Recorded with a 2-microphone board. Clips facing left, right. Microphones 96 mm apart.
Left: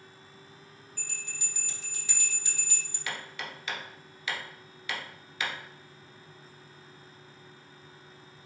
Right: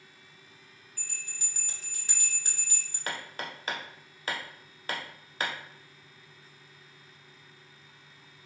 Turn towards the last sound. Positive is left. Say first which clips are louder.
# right 2 dB
turn(degrees=-40)  # may be behind; listen again after turning